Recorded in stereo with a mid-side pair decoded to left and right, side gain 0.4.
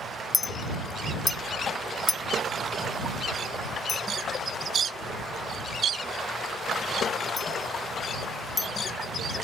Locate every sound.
0.3 s a clink: 30° left